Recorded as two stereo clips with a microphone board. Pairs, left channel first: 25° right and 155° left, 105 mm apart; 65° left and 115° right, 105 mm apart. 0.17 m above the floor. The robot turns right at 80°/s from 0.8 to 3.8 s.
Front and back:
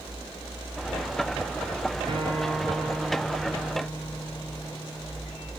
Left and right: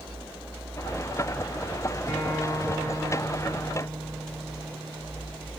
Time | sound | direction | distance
2.1 | a guitar | 125° left | 2.5 m